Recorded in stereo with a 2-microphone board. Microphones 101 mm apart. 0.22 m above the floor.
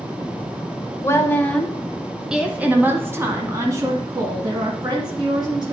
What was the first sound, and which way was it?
A woman speaking, 30° left (ahead or behind).